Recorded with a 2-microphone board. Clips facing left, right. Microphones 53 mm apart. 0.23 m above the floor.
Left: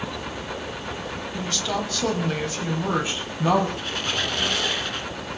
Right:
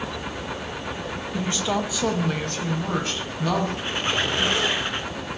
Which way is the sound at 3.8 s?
25° right (ahead or behind).